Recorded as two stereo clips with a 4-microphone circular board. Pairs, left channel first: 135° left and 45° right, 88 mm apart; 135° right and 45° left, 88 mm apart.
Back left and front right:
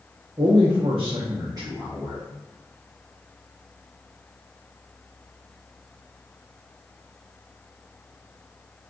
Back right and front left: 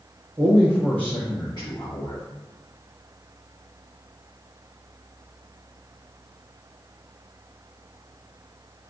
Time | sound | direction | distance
0.4 | a man speaking | 10° right | 0.6 m